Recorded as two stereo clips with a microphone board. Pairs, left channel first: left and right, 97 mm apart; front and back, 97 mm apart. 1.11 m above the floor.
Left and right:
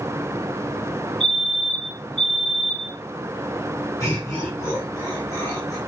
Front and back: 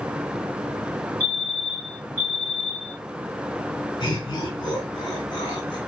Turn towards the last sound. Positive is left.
turn(degrees=30)